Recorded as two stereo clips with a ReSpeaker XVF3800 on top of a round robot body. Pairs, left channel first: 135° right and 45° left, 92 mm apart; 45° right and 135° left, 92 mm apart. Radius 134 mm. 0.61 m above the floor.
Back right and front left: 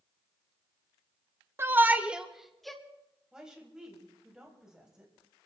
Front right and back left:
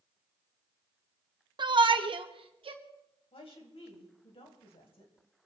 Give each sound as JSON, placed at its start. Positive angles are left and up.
{"t": 1.6, "sound": "a shout", "azimuth_deg": 105, "distance_m": 1.7}
{"t": 3.3, "sound": "a woman speaking", "azimuth_deg": -40, "distance_m": 4.0}